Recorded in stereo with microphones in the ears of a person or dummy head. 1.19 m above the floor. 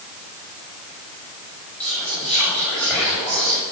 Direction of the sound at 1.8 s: 5° left (ahead or behind).